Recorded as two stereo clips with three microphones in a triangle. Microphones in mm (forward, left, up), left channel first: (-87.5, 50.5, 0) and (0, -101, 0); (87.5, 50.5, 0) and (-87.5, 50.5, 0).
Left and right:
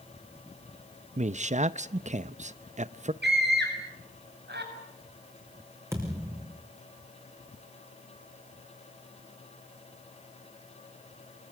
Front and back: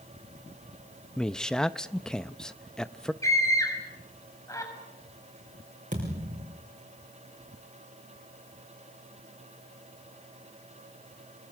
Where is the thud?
135° right, 6 m.